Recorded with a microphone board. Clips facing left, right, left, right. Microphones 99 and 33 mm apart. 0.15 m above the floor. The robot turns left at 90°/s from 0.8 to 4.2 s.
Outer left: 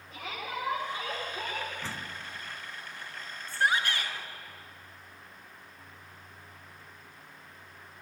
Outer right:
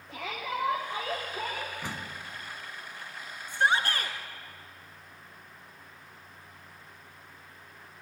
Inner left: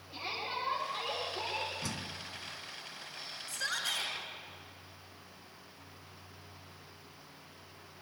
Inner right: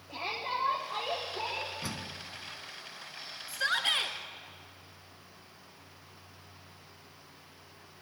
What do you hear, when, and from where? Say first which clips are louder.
0.1 s a shout: outer right 3 dB, inner right 3 dB; 75° right, 8 m; by 1.7 s 160° right, 8 m
1.8 s a door slam: outer right 1 dB, inner right 1 dB; 15° right (ahead or behind), 0.9 m; by 2.2 s 25° right (ahead or behind), 0.9 m
3.5 s a shout: outer right 2 dB, inner right 7 dB; 15° right, 2 m; by 4.2 s 75° right, 2 m